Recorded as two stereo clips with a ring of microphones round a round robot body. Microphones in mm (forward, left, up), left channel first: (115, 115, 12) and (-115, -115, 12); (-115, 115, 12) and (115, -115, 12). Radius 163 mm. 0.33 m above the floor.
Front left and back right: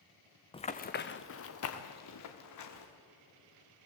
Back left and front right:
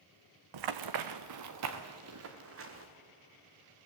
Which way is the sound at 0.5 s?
30° right.